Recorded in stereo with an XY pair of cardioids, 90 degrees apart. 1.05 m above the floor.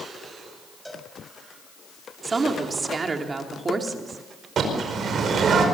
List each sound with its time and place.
0.8 s a cowbell: 5° right, 4.5 m
2.2 s a woman speaking: 40° right, 3 m
4.6 s a bird: 65° right, 5 m